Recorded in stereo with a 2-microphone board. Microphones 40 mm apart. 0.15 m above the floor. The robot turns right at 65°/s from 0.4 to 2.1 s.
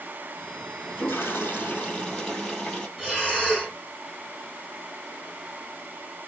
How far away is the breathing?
About 4 m.